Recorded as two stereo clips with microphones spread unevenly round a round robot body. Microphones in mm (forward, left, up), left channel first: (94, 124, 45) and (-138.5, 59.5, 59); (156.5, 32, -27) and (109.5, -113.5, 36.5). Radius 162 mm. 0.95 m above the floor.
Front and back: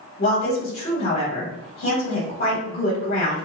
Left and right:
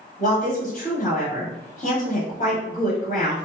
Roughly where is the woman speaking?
Ahead left.